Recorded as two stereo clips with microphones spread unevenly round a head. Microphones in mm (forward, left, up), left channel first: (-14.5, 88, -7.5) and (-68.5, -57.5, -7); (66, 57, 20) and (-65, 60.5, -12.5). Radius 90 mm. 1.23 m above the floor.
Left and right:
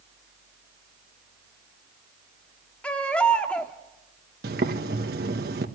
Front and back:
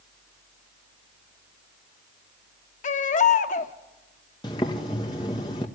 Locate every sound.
2.8 s a baby crying: 15° right, 1.2 m
4.4 s boiling: 70° right, 1.7 m